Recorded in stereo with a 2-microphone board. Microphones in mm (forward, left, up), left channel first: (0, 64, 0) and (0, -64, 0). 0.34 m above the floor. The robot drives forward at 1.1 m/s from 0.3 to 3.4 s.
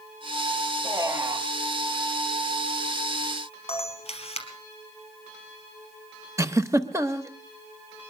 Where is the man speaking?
20° right (ahead or behind), 3 m; by 1.5 s 25° right (ahead or behind), 2.5 m.